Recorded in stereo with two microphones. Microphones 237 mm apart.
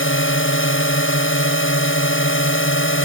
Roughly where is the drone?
Left.